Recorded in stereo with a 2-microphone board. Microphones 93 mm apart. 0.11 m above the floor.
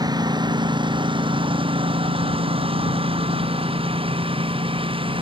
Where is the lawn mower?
50° right (ahead or behind); by 5.2 s 70° right (ahead or behind).